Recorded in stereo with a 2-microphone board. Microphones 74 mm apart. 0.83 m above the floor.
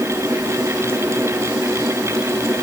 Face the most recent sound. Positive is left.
No sound to turn to.